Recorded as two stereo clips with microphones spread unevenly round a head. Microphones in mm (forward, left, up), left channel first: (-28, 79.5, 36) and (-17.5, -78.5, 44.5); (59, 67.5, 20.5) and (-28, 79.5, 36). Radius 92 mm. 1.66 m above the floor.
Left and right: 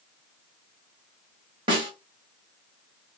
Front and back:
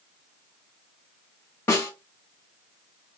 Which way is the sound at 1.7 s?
80° right.